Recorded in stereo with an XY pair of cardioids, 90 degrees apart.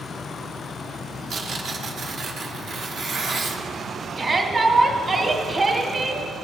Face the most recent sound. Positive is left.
turn(degrees=-45)